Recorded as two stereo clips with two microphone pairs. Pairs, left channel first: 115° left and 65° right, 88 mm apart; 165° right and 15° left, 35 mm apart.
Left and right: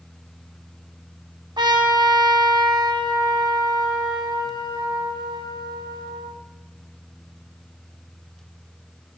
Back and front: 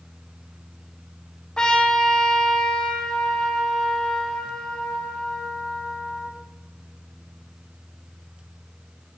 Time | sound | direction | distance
1.6 | a trumpet | 95° right | 1.0 m